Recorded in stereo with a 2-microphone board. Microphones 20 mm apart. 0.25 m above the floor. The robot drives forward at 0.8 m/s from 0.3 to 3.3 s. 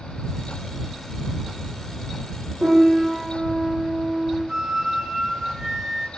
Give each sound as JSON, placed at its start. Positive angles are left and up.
{"t": 2.6, "sound": "a piano", "side_deg": -80, "distance_m": 9.0}
{"t": 4.5, "sound": "a flute", "side_deg": -30, "distance_m": 3.0}